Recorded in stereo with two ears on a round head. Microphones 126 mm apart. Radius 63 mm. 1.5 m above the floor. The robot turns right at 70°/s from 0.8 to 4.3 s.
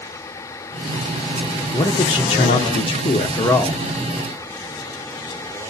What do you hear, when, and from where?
1.7 s a man speaking: 30° left, 0.5 m; by 3.8 s 175° left, 0.5 m